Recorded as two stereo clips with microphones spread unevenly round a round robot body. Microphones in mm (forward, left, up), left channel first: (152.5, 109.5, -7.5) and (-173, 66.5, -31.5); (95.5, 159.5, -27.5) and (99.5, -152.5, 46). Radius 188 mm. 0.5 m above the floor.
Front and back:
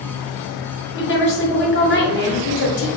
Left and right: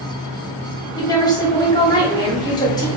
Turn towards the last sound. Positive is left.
turn(degrees=45)